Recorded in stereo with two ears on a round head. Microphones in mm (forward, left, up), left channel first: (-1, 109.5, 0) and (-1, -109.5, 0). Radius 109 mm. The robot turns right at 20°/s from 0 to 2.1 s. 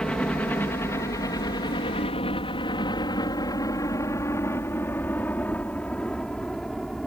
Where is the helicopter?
5° left (ahead or behind); by 7.1 s centre (ahead or behind).